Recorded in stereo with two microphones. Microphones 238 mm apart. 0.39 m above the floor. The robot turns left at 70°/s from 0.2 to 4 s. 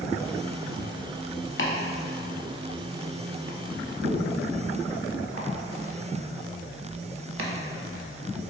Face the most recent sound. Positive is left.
turn(degrees=-65)  # may be behind; listen again after turning